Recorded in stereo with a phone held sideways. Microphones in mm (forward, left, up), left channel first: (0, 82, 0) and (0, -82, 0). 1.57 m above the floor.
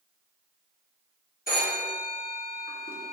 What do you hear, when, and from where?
1.5 s a phone ringing: 60° left (ahead or behind), 1.1 m